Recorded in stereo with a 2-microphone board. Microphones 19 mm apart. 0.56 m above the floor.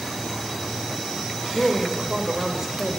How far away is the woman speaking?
About 2.5 m.